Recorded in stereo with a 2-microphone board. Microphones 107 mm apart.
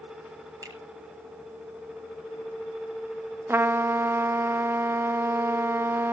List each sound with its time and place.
0.6 s a finger snap: 35° right (ahead or behind), 6.5 m
3.5 s a trumpet: 20° right (ahead or behind), 0.6 m